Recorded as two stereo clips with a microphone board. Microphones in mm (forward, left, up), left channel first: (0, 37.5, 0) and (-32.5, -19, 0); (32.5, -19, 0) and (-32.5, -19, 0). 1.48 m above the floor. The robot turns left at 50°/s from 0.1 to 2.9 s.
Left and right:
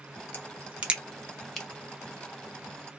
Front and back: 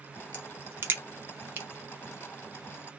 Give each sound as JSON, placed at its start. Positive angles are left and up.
{"t": 0.3, "sound": "a crack", "azimuth_deg": -145, "distance_m": 0.9}